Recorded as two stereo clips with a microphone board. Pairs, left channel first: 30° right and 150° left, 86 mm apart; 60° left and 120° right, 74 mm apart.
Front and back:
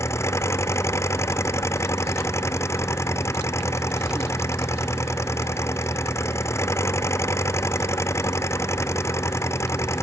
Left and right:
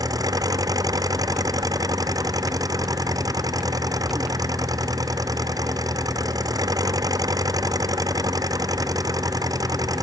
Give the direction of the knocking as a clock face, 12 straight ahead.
No knocking in this recording.